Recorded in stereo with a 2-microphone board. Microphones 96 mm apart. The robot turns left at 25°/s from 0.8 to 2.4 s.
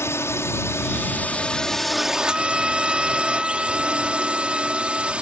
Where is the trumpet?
5° right (ahead or behind).